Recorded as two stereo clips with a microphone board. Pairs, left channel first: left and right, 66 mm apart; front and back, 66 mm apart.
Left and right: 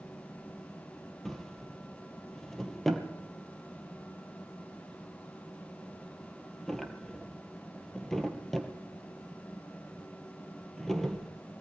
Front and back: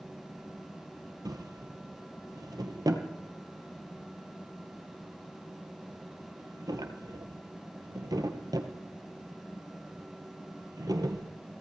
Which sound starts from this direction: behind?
A drawer, at 1.2 s.